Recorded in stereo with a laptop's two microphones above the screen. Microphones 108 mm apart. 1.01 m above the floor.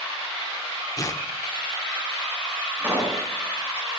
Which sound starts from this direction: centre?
A pop, at 2.8 s.